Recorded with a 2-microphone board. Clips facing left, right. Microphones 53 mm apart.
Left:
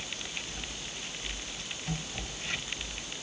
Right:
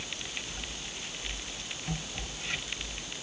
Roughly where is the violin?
No violin in this recording.